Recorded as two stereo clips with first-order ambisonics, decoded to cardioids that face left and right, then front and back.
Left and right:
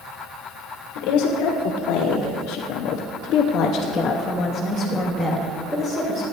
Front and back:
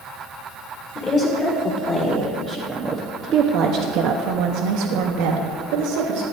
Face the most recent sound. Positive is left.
turn(degrees=-160)